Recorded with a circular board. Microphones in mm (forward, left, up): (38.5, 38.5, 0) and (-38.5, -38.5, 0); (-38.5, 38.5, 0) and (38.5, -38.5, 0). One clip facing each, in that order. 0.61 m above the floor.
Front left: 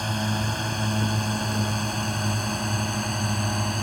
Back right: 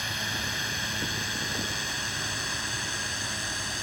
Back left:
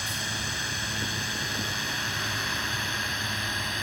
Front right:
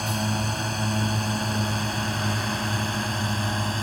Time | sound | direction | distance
0.0 | a drone | 5° right | ?